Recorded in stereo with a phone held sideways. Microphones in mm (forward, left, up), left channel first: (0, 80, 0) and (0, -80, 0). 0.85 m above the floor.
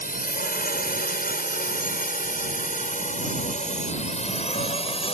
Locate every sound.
0.0 s a drone: 65° left (ahead or behind); by 5.1 s 40° left (ahead or behind)